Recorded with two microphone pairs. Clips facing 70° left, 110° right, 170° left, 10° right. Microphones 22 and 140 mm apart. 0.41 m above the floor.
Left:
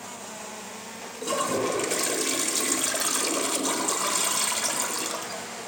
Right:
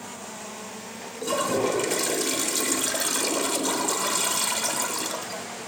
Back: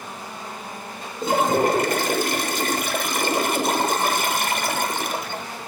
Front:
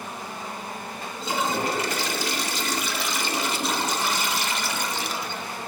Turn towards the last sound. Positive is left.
turn(degrees=160)